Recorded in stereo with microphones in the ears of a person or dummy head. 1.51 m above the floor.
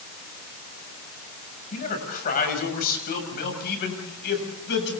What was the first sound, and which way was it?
A man speaking, 45° left (ahead or behind).